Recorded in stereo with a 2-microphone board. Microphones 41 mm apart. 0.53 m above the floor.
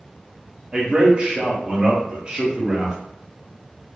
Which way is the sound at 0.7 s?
25° right (ahead or behind).